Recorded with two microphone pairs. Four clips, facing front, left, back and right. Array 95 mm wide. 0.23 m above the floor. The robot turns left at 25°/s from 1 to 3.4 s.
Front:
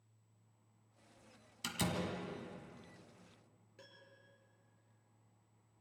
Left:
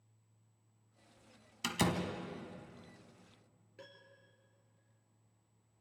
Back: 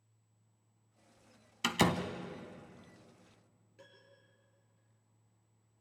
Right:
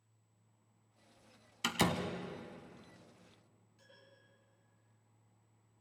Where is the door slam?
165° right, 1.3 m; by 2.0 s 175° right, 1.3 m.